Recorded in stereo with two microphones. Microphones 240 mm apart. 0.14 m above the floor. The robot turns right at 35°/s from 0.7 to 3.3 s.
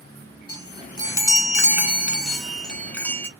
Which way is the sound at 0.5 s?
20° right (ahead or behind).